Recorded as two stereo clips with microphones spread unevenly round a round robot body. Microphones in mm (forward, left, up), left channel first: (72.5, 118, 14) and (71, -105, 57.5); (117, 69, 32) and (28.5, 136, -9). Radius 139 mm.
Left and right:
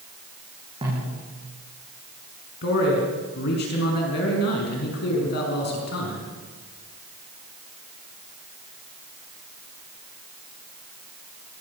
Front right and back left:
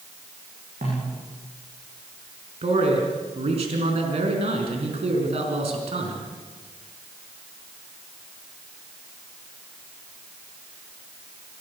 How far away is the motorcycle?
I don't hear a motorcycle.